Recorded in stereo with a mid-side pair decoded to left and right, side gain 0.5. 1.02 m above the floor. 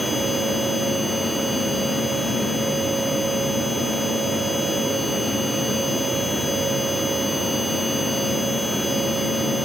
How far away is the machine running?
About 1.1 m.